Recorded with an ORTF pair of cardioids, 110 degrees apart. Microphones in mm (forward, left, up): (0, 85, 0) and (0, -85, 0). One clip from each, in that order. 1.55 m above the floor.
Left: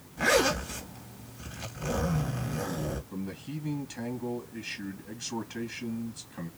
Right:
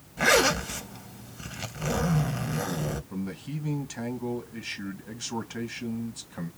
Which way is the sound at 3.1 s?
25° right.